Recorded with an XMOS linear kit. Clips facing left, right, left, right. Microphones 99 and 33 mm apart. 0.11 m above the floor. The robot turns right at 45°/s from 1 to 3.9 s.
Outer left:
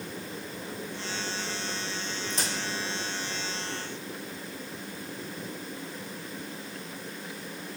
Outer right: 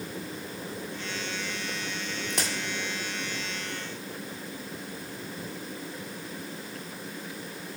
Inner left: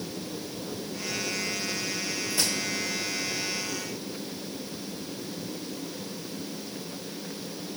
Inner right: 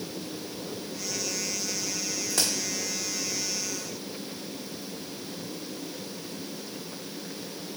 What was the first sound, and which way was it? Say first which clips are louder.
A crack: outer right 2 dB, even; 70° right (ahead or behind).